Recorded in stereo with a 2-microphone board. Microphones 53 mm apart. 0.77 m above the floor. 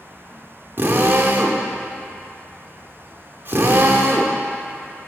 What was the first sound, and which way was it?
A drill, 40° right (ahead or behind).